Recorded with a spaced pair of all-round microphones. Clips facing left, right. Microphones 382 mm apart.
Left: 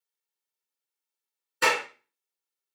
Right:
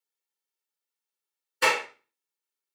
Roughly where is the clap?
Centre.